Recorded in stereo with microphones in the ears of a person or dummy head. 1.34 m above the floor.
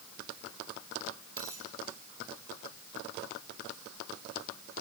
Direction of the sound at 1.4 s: 15° left (ahead or behind).